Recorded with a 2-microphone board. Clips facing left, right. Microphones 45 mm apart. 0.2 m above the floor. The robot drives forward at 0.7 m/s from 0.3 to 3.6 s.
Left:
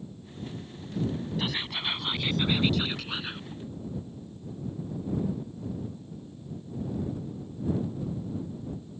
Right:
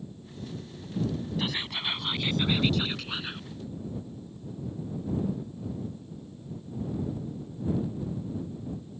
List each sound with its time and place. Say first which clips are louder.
1.4 s whispering: even; centre (ahead or behind)